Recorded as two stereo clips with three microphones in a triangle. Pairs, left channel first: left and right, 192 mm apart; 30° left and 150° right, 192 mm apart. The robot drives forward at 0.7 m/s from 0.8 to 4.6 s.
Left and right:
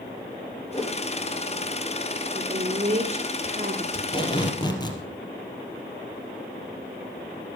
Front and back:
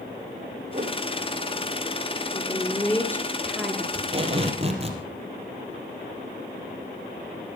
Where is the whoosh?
160° left, 3 m.